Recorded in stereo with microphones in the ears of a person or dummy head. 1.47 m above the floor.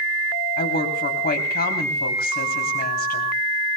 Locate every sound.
0.6 s a woman speaking: 45° left (ahead or behind), 3.5 m